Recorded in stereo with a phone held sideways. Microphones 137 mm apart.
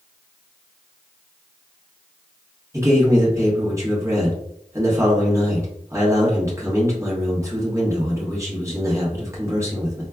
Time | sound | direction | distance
2.7 | a man speaking | 20° right (ahead or behind) | 1.2 m